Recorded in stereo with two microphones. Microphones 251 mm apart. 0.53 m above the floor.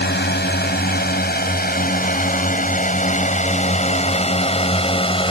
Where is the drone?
40° left (ahead or behind); by 5.3 s 20° left (ahead or behind).